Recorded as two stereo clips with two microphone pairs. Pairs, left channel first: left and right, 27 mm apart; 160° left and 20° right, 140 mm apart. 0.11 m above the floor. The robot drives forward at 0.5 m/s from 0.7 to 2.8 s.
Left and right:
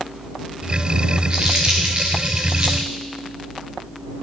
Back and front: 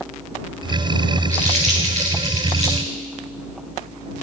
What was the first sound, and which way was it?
Crumpling, 50° right.